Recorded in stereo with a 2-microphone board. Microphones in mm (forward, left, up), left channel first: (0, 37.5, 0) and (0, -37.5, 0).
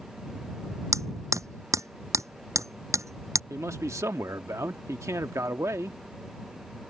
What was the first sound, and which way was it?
Hammering, 45° right (ahead or behind).